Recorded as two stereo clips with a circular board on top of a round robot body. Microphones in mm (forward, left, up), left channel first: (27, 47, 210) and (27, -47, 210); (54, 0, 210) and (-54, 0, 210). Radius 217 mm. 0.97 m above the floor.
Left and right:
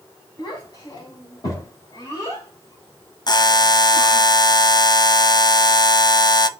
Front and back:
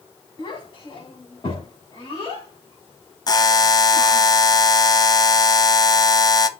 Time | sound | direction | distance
0.4 | a child speaking | 50° left | 5 m
3.3 | a buzzer | 50° left | 0.8 m